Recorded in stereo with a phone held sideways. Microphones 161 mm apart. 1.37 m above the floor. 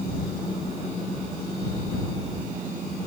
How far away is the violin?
No violin in this recording.